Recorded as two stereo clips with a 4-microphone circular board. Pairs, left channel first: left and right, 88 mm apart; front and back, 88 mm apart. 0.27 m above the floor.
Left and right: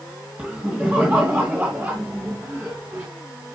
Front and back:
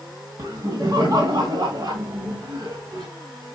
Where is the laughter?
160° right, 2 m; by 3.1 s 145° right, 3.5 m.